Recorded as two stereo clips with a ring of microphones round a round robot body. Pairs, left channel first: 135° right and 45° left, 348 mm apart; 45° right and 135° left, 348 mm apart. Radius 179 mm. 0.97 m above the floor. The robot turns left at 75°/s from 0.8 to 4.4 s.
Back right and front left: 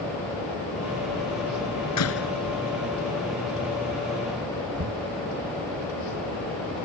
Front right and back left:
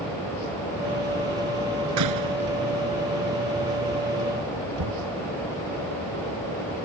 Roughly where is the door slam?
Behind.